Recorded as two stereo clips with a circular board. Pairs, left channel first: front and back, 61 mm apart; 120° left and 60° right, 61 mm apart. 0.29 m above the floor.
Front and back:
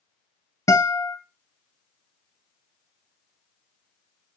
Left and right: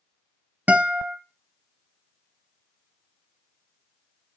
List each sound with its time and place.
0.7 s a guitar: 5° right, 0.9 m